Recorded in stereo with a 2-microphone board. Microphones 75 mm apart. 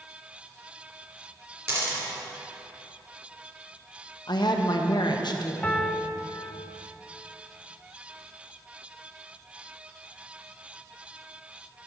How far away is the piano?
About 0.6 m.